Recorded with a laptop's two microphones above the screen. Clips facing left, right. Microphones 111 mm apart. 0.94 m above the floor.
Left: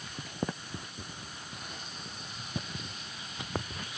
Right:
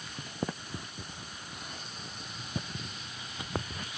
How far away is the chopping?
I don't hear chopping.